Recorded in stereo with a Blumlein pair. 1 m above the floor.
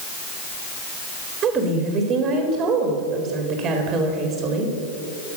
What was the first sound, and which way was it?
A woman speaking, 30° right.